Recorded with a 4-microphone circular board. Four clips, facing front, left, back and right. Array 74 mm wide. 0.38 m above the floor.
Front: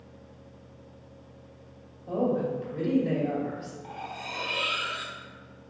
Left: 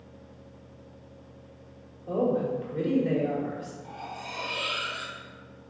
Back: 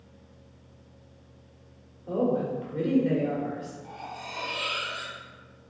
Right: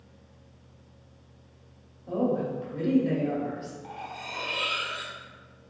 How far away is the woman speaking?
About 1.4 m.